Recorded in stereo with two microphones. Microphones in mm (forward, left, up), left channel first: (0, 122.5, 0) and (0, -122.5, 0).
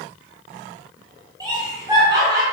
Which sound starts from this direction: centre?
Laughter, at 1.4 s.